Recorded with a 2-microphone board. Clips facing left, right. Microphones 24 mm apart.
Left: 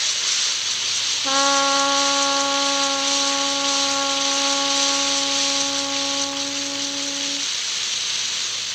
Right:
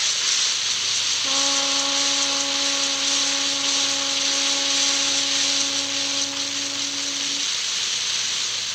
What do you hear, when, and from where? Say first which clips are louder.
1.2 s a trumpet: left 6 dB; 60° left (ahead or behind)